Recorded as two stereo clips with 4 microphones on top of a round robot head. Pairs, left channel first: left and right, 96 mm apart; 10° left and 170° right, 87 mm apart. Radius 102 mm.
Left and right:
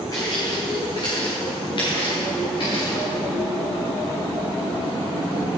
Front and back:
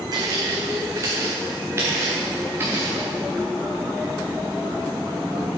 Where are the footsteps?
150° left, 3 m; by 3.1 s 125° left, 7 m.